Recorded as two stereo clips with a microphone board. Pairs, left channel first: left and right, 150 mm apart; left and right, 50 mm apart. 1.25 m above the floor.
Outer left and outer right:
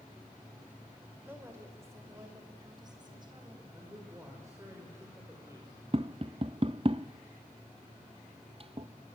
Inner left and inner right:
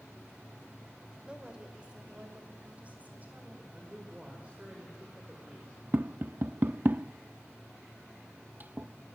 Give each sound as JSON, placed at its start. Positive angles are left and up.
{"t": 1.2, "sound": "a woman speaking", "side_deg": -15, "distance_m": 5.0}
{"t": 3.7, "sound": "a man speaking", "side_deg": -20, "distance_m": 6.0}
{"t": 5.9, "sound": "tapping", "side_deg": -40, "distance_m": 0.9}